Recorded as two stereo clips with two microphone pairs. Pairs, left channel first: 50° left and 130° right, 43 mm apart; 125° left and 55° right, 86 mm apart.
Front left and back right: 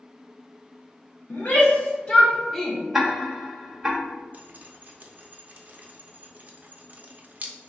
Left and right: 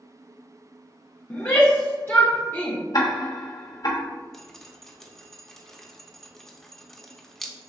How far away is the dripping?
About 0.6 m.